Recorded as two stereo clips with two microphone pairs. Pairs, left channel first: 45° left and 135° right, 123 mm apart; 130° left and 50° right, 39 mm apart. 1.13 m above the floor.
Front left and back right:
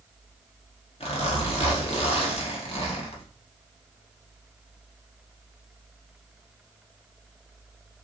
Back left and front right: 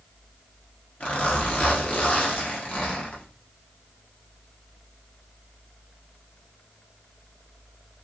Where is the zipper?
80° left, 1.5 m.